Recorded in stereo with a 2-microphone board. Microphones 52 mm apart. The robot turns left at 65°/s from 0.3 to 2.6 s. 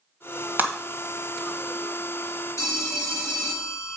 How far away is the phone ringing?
About 2 m.